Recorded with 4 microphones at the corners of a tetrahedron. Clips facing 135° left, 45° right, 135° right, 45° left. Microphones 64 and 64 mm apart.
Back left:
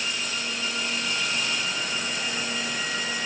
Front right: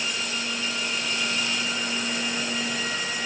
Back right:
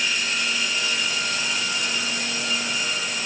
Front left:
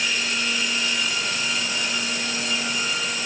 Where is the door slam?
I don't hear a door slam.